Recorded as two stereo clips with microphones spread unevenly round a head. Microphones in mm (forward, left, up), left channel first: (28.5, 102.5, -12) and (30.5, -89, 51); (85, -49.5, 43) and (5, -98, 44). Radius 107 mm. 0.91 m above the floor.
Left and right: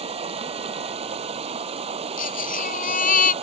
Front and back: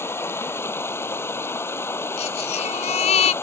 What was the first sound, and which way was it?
Running water, 35° right.